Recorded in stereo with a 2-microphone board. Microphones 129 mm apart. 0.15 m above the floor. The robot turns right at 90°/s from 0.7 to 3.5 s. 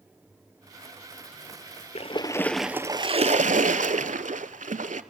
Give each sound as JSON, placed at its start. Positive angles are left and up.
{"t": 1.9, "sound": "a splash", "azimuth_deg": 120, "distance_m": 0.5}